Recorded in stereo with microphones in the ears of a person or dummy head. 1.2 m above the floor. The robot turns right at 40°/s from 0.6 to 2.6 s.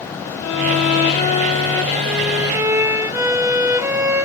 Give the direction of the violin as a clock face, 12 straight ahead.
8 o'clock.